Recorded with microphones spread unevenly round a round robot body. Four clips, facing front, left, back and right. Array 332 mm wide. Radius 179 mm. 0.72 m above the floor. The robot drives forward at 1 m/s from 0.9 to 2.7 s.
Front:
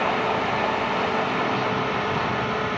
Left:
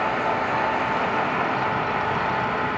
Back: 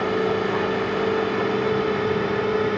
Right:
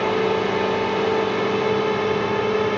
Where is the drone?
125° right; by 2.8 s 130° right.